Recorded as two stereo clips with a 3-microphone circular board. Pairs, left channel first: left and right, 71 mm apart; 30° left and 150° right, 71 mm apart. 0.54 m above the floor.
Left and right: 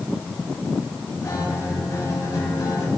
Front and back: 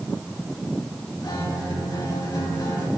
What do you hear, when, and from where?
1.2 s a guitar: 55° left, 2.5 m